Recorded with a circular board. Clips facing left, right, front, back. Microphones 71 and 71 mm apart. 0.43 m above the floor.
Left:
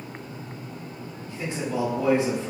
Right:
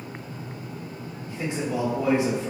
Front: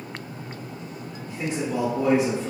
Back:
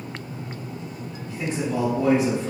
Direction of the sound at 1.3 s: 50° right.